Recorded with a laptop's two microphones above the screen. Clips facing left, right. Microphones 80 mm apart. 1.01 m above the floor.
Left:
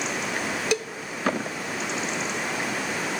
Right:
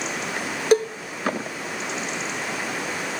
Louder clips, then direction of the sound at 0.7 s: Right 12 dB; 40° right (ahead or behind).